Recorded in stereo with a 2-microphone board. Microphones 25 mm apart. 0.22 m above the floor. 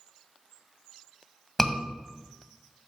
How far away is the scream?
About 1.5 m.